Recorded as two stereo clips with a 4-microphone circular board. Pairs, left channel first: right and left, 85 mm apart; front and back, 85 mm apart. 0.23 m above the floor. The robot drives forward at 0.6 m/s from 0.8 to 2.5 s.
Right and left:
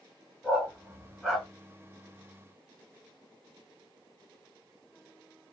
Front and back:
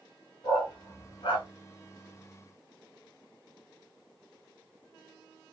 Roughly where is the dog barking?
Ahead.